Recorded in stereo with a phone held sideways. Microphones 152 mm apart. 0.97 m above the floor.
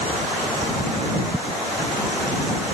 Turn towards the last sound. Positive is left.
No sound to turn to.